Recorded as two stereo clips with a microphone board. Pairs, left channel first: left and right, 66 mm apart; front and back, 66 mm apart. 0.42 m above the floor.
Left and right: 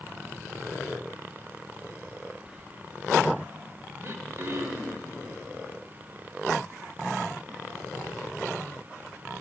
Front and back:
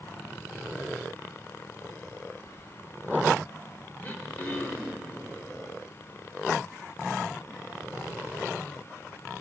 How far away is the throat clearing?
About 1.0 m.